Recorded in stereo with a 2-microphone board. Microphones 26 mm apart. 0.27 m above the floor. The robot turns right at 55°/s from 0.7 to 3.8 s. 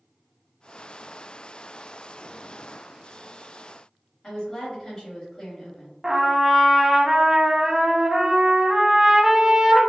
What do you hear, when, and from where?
4.2 s a woman speaking: 20° left (ahead or behind), 1.3 m
6.0 s a trumpet: 20° right (ahead or behind), 0.5 m